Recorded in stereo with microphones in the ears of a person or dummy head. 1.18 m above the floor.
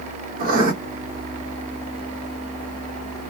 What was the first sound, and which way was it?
Writing, 50° right (ahead or behind).